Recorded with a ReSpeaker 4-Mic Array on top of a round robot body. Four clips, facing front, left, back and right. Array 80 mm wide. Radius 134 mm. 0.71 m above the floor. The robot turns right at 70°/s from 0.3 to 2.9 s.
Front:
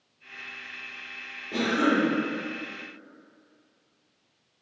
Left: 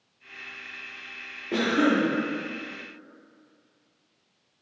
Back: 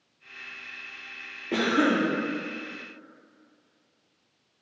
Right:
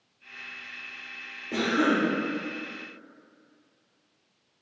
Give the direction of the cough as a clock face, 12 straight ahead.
7 o'clock.